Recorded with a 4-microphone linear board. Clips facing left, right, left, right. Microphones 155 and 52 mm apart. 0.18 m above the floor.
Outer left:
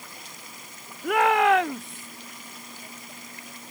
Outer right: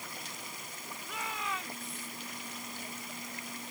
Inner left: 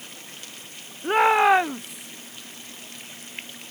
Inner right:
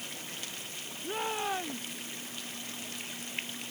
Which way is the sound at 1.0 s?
70° left (ahead or behind).